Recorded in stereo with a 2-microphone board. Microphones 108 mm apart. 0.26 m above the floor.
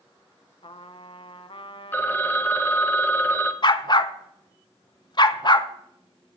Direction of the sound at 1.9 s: 20° left (ahead or behind).